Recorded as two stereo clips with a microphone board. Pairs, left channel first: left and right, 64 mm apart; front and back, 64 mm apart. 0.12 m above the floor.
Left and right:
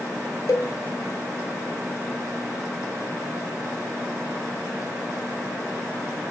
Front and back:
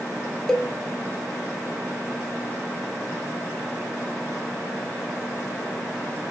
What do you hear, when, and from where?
0.5 s a cowbell: 80° left, 0.5 m